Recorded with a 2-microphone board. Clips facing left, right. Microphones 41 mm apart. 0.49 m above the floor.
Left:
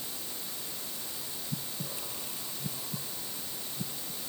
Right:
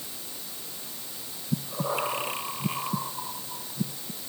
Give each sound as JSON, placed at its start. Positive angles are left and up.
{"t": 1.5, "sound": "breathing", "side_deg": -75}